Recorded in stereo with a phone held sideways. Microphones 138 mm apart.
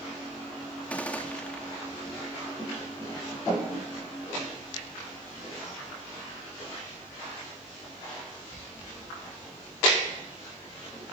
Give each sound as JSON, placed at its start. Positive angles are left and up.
{"t": 0.9, "sound": "a gunshot", "side_deg": 10, "distance_m": 2.5}